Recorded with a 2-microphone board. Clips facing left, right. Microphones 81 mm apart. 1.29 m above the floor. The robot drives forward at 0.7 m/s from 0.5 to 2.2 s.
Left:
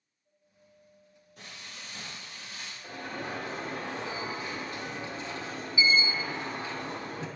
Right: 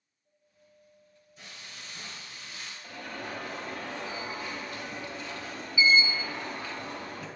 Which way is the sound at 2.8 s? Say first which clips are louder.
Left 2 dB; 25° left (ahead or behind).